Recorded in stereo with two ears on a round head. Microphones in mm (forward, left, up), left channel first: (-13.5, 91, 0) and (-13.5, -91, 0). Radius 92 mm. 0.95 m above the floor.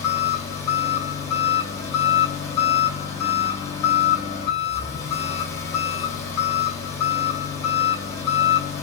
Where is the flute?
No flute in this recording.